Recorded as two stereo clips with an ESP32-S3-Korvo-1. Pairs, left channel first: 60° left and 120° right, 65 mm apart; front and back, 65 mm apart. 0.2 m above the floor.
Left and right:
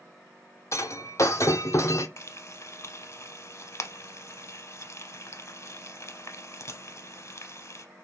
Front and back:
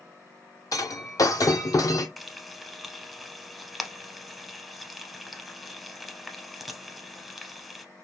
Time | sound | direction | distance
0.7 | breaking glass | 20° left | 0.5 m
2.2 | frying | 90° left | 0.6 m